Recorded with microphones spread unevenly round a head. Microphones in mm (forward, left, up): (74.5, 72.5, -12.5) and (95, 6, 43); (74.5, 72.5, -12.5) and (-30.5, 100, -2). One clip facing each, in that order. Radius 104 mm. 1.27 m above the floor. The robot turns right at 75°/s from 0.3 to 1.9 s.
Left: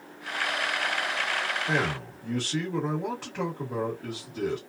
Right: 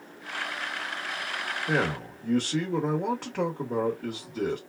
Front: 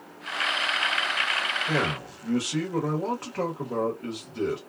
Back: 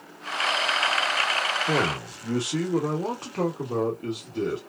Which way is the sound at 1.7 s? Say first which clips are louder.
Right 4 dB, back 1 dB; 135° right.